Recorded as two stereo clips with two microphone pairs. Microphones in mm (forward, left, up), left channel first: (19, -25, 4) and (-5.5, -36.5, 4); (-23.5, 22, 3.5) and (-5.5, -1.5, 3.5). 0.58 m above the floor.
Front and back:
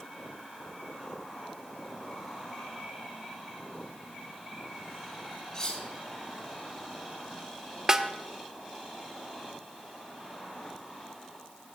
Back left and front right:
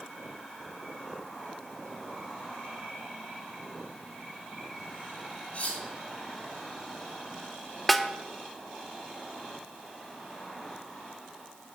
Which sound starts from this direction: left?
Cutlery clinking, at 5.5 s.